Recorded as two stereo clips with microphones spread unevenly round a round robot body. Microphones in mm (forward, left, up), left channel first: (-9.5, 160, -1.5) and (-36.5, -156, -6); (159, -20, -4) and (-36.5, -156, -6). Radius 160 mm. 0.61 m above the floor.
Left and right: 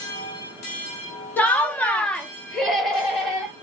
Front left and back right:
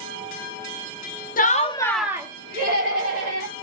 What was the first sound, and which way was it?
Laughter, straight ahead.